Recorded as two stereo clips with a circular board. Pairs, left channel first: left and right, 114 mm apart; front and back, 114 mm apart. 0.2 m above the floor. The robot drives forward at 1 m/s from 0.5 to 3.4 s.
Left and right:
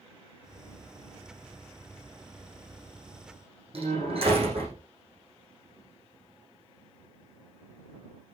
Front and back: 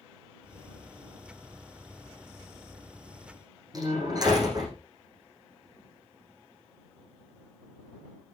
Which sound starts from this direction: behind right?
A door slam, at 3.7 s.